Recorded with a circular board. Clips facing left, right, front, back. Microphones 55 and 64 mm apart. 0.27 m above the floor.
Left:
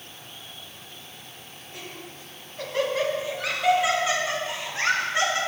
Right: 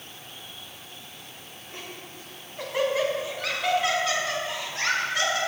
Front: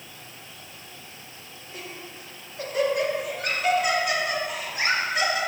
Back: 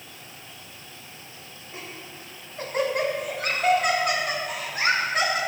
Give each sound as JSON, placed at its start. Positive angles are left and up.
{"t": 1.7, "sound": "laughter", "azimuth_deg": -130, "distance_m": 1.8}